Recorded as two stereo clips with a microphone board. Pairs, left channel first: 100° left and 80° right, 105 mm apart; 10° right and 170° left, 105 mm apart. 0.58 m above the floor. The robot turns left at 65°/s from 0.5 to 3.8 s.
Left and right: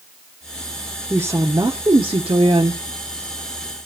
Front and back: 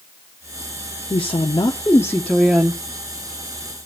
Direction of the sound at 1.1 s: 15° right.